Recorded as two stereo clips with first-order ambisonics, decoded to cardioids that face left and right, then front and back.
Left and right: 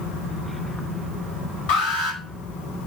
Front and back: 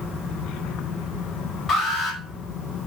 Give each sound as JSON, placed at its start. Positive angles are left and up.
{"t": 1.7, "sound": "an alarm", "azimuth_deg": 75, "distance_m": 5.0}